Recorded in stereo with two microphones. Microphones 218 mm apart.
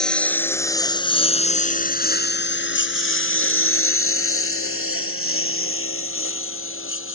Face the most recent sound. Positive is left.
turn(degrees=70)  # may be behind; listen again after turning